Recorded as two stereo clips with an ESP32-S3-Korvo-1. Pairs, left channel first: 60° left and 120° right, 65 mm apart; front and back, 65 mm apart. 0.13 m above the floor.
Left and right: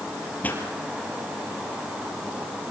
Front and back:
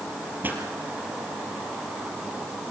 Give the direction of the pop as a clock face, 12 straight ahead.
8 o'clock.